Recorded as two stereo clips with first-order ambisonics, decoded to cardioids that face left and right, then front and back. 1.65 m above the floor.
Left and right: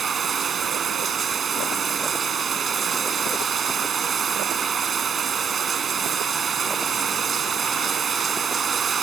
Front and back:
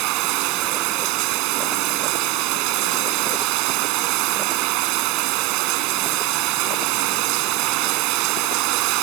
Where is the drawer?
I don't hear a drawer.